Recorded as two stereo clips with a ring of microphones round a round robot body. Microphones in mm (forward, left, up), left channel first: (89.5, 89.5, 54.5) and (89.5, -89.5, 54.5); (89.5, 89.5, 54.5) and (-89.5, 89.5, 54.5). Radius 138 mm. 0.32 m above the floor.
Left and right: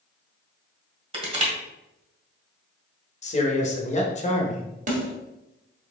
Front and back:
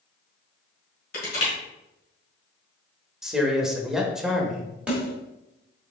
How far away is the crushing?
About 2 m.